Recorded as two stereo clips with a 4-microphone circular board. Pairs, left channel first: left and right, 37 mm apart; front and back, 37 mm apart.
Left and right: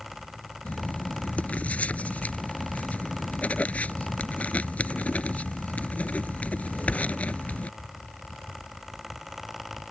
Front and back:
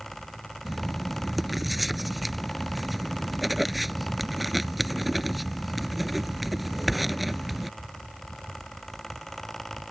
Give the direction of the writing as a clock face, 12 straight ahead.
9 o'clock.